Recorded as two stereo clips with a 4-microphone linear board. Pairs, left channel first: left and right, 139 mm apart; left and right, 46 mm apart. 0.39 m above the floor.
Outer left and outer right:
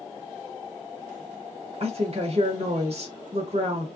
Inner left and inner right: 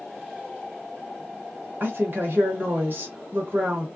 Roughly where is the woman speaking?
Right.